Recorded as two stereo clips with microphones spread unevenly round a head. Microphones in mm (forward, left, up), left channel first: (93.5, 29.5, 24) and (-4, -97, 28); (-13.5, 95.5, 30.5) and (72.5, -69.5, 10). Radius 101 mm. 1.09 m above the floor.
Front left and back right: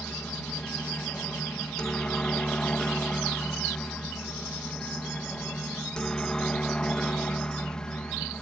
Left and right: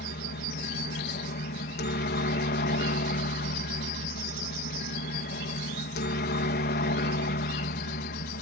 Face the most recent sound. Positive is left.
turn(degrees=135)